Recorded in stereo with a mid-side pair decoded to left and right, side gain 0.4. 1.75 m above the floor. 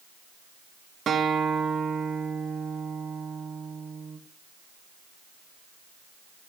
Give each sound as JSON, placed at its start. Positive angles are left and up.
{"t": 1.1, "sound": "a guitar", "azimuth_deg": -60, "distance_m": 2.0}